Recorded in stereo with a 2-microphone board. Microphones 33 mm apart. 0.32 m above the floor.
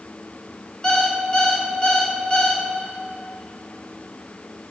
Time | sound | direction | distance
0.8 | an alarm clock | 25° left (ahead or behind) | 1.7 m